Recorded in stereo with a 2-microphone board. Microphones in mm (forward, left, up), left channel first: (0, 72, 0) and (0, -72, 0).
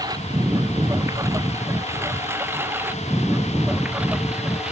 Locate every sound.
0.0 s a lawn mower: 25° right (ahead or behind); by 4.7 s 5° right (ahead or behind)